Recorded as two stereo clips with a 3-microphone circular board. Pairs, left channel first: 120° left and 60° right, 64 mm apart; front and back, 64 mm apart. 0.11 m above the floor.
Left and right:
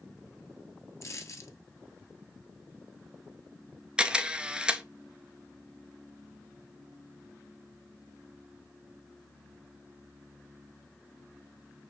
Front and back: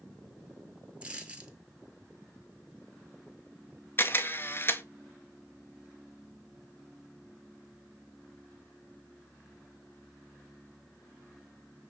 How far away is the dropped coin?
About 1.1 m.